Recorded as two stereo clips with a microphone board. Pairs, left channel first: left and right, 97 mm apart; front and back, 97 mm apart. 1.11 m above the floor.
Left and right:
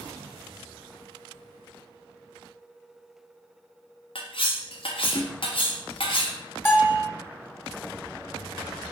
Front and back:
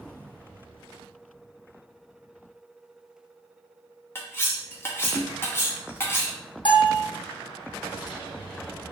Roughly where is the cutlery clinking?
Ahead left.